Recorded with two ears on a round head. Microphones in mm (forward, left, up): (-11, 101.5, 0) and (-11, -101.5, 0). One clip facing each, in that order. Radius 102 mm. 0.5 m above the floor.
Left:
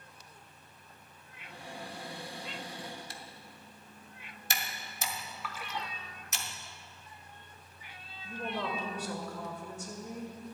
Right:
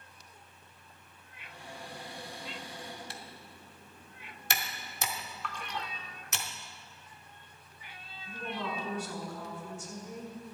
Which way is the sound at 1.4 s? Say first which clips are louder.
Left 2 dB; 65° left (ahead or behind).